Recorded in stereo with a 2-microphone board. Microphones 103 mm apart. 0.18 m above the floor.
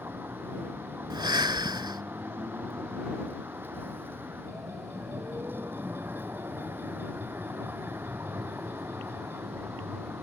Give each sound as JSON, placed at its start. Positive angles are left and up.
{"t": 0.0, "sound": "a vehicle", "side_deg": -20}
{"t": 1.1, "sound": "breathing", "side_deg": -45}